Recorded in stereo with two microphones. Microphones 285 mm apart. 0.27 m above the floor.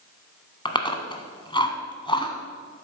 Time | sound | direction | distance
0.7 | chewing | 20° left (ahead or behind) | 1.0 m